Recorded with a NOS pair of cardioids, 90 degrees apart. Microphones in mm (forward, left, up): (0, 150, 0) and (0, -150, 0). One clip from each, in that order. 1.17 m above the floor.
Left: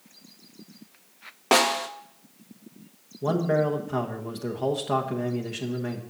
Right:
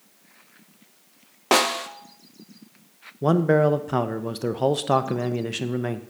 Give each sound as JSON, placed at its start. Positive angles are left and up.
{"t": 1.5, "sound": "a snare drum", "azimuth_deg": -5, "distance_m": 0.7}
{"t": 3.2, "sound": "a man speaking", "azimuth_deg": -40, "distance_m": 0.9}